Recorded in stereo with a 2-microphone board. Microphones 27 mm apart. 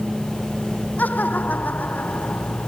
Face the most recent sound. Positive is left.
turn(degrees=85)